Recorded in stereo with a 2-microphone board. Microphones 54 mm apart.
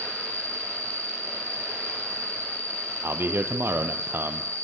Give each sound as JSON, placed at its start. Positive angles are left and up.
{"t": 0.0, "sound": "an insect", "side_deg": -60, "distance_m": 1.6}
{"t": 3.0, "sound": "a man speaking", "side_deg": -45, "distance_m": 3.0}